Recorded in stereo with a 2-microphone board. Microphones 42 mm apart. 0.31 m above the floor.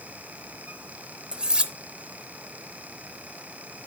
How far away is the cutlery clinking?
About 0.5 m.